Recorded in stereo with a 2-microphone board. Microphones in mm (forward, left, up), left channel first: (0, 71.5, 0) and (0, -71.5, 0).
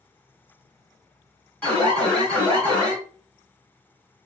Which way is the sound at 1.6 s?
10° left (ahead or behind).